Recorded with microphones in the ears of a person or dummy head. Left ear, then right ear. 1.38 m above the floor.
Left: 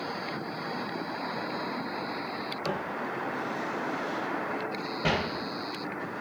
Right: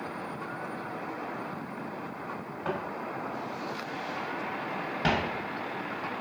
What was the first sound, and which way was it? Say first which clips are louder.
Footsteps: right 1 dB; 25° left (ahead or behind).